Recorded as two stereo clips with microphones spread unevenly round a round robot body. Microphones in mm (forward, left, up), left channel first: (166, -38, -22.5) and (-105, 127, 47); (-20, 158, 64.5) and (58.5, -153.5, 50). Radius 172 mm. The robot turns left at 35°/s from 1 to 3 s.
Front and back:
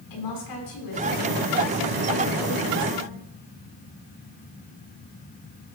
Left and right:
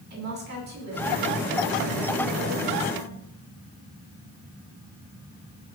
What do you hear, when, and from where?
0.1 s a woman speaking: 15° right, 8.5 m; by 3.3 s 85° right, 8.5 m